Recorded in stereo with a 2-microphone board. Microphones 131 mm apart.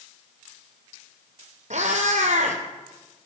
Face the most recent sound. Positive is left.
turn(degrees=-70)  # may be behind; listen again after turning